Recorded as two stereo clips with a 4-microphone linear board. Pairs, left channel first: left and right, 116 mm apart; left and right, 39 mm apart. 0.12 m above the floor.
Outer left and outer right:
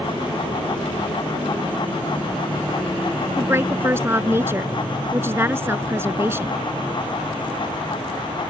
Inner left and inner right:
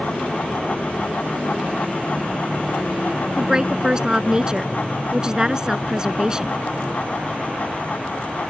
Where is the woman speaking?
20° right (ahead or behind).